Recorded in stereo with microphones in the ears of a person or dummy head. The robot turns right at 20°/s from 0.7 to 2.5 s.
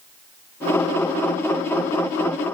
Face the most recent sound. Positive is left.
No sound to turn to.